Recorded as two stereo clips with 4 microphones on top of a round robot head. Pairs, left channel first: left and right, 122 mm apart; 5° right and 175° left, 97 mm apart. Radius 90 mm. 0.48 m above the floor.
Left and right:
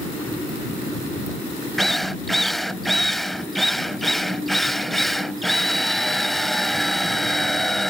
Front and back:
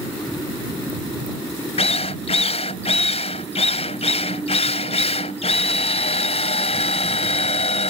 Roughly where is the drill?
Ahead.